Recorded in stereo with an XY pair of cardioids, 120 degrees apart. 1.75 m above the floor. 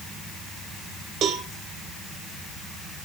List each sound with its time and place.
1.2 s a cowbell: 55° right, 1.6 m